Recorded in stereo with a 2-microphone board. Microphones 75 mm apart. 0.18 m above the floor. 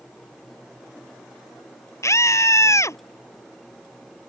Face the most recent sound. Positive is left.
turn(degrees=40)  # may be behind; listen again after turning